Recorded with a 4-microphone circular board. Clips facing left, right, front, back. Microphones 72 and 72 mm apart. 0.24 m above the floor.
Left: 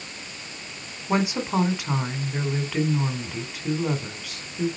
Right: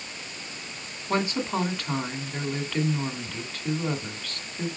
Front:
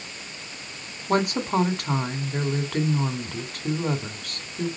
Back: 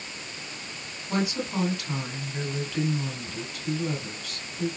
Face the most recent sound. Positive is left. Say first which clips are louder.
# left 3 dB, front 5 dB
turn(degrees=15)